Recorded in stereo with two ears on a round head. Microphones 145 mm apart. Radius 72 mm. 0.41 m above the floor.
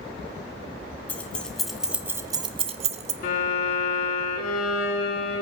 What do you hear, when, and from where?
1.1 s keys jangling: 10° left (ahead or behind), 1.5 m; by 3.1 s 40° right (ahead or behind), 1.0 m
3.2 s a violin: 55° left (ahead or behind), 4 m